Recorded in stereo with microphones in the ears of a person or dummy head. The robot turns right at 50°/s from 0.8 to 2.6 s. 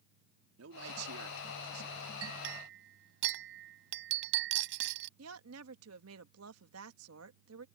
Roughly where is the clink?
Right.